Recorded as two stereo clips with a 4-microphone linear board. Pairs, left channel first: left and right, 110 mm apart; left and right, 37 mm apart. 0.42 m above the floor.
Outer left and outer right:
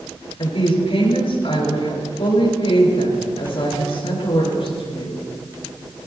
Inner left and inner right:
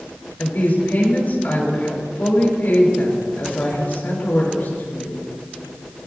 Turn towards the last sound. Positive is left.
turn(degrees=65)  # may be behind; listen again after turning